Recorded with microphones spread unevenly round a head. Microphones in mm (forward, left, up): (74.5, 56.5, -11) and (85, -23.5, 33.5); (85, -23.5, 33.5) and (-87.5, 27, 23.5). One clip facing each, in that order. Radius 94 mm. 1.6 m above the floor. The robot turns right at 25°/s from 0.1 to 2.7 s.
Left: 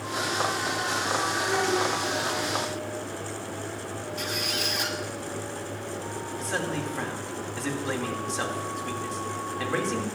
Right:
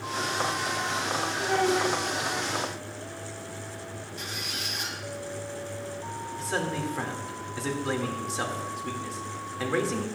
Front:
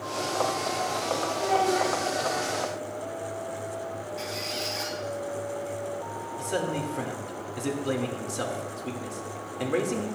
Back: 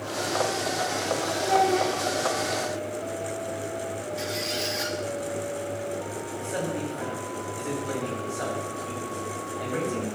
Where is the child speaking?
105° right, 3 m; by 1.9 s 90° right, 3 m.